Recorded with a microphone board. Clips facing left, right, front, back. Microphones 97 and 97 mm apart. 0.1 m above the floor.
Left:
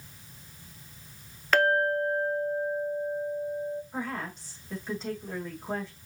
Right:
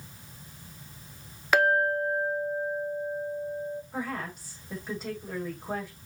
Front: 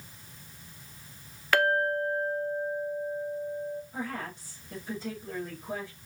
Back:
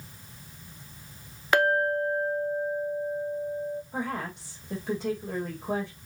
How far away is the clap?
I don't hear a clap.